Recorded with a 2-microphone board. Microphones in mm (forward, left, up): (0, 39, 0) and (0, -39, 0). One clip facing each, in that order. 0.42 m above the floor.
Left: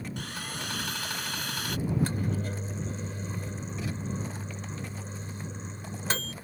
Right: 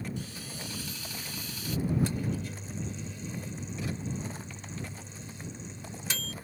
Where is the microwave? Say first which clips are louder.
Left 1 dB; 50° left (ahead or behind).